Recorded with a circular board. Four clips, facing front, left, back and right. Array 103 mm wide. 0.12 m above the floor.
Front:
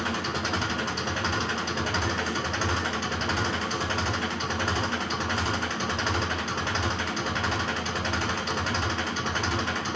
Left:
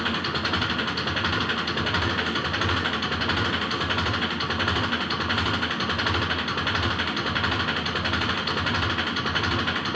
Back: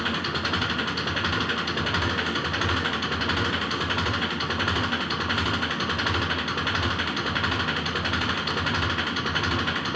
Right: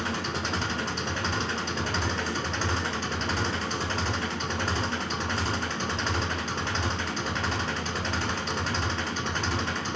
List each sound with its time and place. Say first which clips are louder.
0.0 s an engine running: left 3 dB, back 1 dB; 125° left, 1.1 m